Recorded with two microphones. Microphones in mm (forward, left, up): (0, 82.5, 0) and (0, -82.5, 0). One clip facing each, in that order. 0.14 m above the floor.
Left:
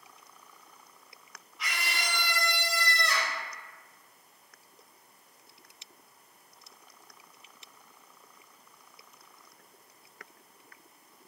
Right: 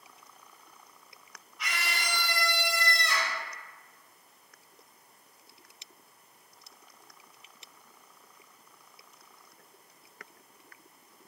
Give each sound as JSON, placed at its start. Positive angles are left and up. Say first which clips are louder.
{"t": 1.6, "sound": "a scream", "louder": "even", "side_deg": 0, "distance_m": 1.6}